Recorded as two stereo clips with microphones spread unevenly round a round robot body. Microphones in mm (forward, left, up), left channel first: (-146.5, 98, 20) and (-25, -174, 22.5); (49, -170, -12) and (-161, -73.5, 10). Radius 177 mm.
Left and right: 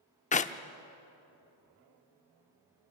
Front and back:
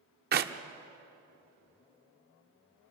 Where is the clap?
165° left, 0.7 m.